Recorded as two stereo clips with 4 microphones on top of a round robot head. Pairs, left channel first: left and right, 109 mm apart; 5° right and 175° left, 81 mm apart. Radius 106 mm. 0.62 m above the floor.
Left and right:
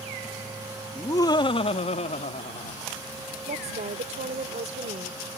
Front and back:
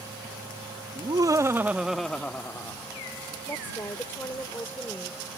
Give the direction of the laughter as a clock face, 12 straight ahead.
7 o'clock.